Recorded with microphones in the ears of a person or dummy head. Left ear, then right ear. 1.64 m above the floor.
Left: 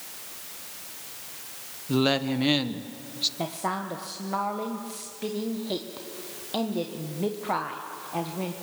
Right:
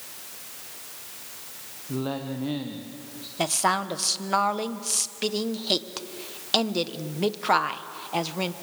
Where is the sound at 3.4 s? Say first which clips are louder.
Right 6 dB; 50° right (ahead or behind), 1.1 m.